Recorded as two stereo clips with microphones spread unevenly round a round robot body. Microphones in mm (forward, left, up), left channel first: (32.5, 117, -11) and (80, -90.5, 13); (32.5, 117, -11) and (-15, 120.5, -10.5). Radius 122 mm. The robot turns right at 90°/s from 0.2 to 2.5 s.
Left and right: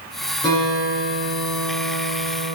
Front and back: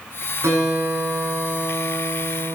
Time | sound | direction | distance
0.4 | a guitar | 175° left | 8.5 m